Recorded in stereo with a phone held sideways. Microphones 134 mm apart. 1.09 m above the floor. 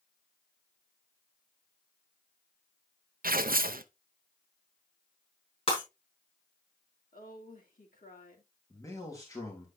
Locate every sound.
3.2 s tearing paper: 85° right, 0.5 m
5.7 s breaking glass: 40° left (ahead or behind), 5.5 m
7.1 s a woman speaking: 70° left (ahead or behind), 2.5 m
8.7 s a man speaking: 25° left (ahead or behind), 2 m